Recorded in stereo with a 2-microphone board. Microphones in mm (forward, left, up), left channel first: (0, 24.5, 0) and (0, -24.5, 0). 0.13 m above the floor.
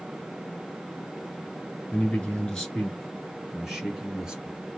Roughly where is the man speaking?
Left.